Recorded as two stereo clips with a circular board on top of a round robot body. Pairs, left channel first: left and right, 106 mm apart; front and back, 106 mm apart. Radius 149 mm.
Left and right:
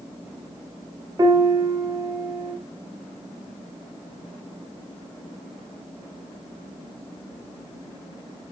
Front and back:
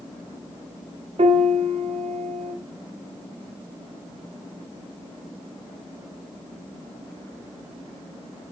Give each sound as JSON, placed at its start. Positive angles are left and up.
{"t": 1.2, "sound": "a piano", "azimuth_deg": -150, "distance_m": 2.0}